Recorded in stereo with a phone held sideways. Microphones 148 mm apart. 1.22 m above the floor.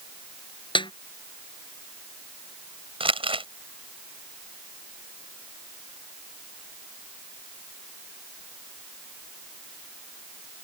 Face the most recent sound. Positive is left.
turn(degrees=-35)  # may be behind; listen again after turning